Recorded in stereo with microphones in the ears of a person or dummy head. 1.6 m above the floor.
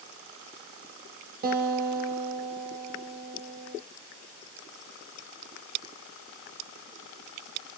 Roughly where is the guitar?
Right.